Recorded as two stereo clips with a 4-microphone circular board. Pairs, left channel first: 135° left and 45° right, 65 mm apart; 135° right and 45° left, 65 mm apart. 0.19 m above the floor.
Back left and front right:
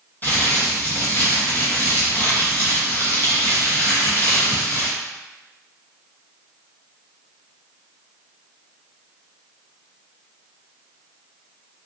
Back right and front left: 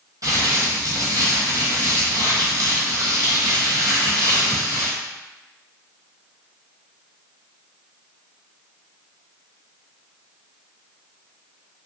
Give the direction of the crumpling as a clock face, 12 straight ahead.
10 o'clock.